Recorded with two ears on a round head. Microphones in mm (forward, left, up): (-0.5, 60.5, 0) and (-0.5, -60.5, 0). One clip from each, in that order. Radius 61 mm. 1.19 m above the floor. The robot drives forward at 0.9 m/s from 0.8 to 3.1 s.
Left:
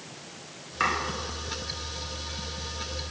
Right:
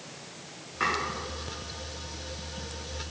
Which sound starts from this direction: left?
Chopping, at 0.8 s.